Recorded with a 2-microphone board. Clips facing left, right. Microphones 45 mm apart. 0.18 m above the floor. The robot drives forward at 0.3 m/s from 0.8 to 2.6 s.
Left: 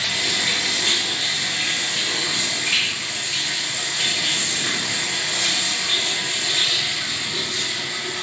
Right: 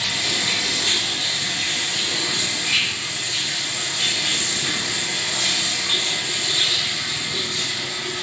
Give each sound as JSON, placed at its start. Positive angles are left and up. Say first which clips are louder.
{"t": 0.0, "sound": "running water", "louder": "left 1 dB", "side_deg": 45, "distance_m": 1.5}